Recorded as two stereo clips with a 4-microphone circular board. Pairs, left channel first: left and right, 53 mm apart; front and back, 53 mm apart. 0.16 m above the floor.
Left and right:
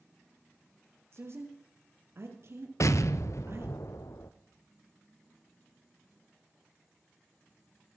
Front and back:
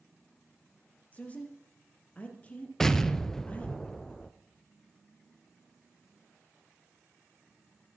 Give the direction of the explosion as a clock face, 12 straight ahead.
9 o'clock.